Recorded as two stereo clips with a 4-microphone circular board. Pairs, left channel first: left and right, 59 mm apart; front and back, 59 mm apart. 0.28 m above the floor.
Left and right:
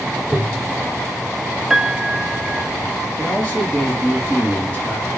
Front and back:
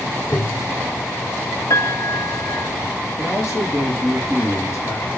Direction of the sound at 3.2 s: 25° left.